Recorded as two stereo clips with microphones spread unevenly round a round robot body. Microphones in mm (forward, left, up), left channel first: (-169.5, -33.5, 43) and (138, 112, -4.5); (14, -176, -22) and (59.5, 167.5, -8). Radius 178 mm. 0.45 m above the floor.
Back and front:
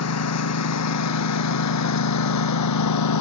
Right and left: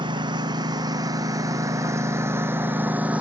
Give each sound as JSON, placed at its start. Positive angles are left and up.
{"t": 0.0, "sound": "a lawn mower", "azimuth_deg": 160}